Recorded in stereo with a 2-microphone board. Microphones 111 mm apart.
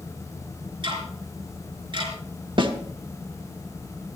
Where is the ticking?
50° right (ahead or behind), 4 m.